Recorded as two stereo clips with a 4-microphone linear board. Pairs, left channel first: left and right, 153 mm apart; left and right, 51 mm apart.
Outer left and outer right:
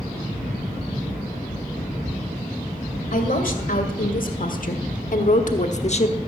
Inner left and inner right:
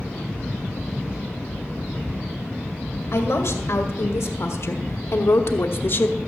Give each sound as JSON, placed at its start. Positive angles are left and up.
{"t": 3.1, "sound": "a woman speaking", "side_deg": 65, "distance_m": 2.0}